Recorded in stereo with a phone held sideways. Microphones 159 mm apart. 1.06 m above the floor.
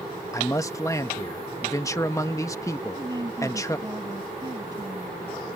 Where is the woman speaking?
25° right (ahead or behind).